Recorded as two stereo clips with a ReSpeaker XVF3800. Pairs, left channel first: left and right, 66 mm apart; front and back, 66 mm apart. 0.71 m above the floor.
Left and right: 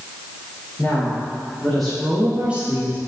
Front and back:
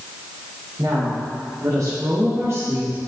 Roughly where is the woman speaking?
Behind.